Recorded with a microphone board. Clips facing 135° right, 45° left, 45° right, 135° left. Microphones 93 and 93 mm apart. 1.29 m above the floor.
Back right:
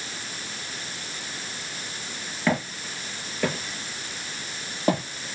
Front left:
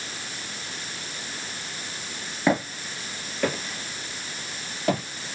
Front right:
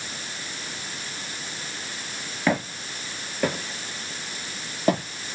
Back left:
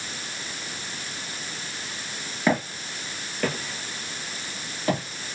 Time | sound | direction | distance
2.5 | footsteps | 70° left | 1.3 m